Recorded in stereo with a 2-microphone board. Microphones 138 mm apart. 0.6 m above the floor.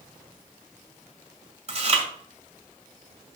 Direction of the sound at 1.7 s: 45° right (ahead or behind).